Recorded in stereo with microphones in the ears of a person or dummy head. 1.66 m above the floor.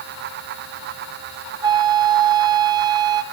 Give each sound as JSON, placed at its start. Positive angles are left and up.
{"t": 1.6, "sound": "a flute", "side_deg": -25, "distance_m": 0.8}